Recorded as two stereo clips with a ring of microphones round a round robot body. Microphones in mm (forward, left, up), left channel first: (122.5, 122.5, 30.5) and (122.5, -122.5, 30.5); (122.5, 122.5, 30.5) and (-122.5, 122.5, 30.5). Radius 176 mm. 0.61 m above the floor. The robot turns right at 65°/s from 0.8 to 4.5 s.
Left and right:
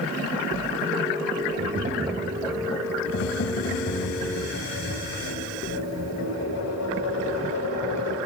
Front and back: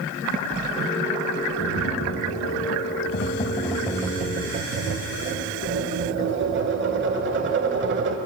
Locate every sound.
1.6 s tapping: 50° right, 0.8 m; by 8.2 s 140° left, 0.8 m